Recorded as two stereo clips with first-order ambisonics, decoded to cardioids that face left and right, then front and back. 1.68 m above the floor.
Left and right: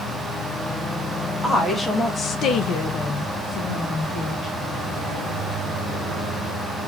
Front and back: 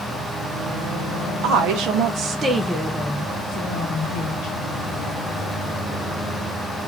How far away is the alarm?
I don't hear an alarm.